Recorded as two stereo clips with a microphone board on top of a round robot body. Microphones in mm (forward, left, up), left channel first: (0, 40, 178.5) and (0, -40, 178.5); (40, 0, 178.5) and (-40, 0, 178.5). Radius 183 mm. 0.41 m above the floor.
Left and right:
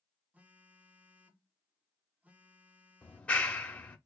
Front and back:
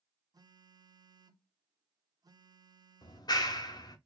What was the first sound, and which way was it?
A phone buzzing, 160° right.